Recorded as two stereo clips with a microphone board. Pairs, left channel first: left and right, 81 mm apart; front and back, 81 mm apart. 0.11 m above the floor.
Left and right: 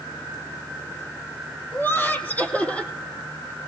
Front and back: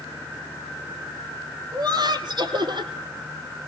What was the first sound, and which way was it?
Laughter, 155° left.